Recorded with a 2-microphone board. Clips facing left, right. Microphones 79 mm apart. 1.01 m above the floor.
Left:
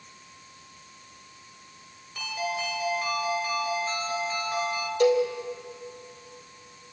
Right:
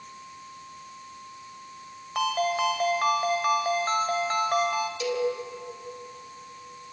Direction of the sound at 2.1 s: 60° right (ahead or behind).